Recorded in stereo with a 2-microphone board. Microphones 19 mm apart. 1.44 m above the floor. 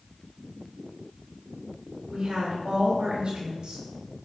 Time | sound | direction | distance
2.1 | a woman speaking | 45° right (ahead or behind) | 4 m